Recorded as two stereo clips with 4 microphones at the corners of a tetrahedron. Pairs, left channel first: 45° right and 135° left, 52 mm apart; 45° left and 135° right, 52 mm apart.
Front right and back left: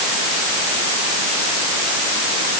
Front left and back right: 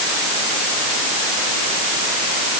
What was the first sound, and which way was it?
Only background noise.